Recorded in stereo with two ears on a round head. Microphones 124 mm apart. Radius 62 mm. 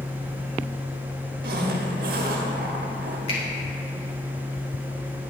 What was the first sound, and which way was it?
A zipper, 75° right (ahead or behind).